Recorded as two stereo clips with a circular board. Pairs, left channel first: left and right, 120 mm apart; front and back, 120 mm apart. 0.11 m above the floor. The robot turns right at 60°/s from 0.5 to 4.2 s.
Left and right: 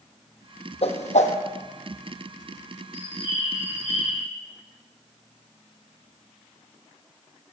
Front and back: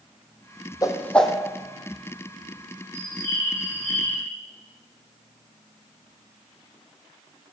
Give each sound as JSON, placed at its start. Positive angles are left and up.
{"t": 0.8, "sound": "a whoosh", "azimuth_deg": 60, "distance_m": 0.6}
{"t": 2.9, "sound": "a bird", "azimuth_deg": 115, "distance_m": 2.5}